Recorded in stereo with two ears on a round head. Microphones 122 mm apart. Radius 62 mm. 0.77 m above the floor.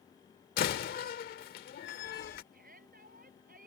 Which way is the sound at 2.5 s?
55° right (ahead or behind).